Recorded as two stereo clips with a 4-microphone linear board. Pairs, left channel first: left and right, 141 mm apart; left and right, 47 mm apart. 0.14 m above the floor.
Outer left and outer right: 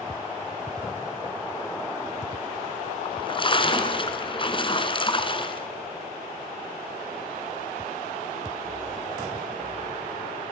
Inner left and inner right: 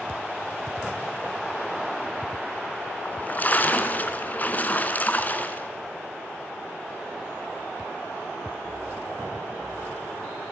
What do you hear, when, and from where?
3.0 s a splash: 35° left (ahead or behind), 1.9 m